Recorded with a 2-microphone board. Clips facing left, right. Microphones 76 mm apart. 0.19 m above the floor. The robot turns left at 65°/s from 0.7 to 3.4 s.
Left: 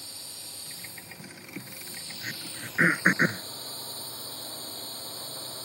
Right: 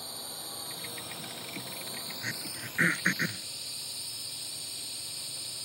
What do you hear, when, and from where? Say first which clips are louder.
0.0 s a drone: right 5 dB; 50° right; by 5.6 s 135° left
2.2 s throat clearing: left 1 dB; 10° right (ahead or behind); by 3.4 s 55° left (ahead or behind)